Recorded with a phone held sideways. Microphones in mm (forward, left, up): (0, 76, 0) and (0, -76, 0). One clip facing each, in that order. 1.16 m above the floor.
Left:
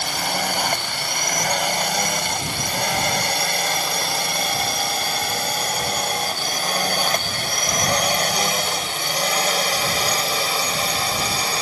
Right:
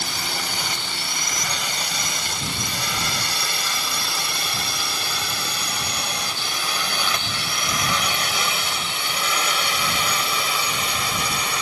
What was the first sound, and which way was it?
A drone, 55° left (ahead or behind).